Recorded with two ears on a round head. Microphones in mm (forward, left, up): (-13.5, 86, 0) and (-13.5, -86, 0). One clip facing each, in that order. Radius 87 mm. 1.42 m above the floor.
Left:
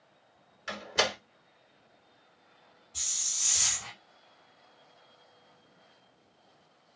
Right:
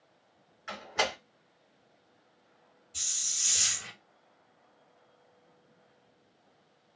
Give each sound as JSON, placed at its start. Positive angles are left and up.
{"t": 0.7, "sound": "a door slam", "side_deg": 40, "distance_m": 1.0}
{"t": 2.9, "sound": "a hiss", "side_deg": -20, "distance_m": 1.5}